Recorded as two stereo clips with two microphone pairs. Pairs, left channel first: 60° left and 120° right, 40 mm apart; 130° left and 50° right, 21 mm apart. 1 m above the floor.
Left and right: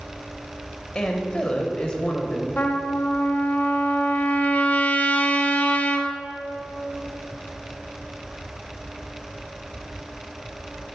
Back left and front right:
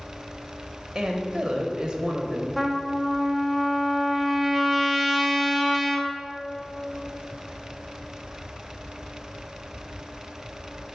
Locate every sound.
0.9 s a woman speaking: 25° left, 1.0 m
2.6 s a trumpet: 50° left, 1.2 m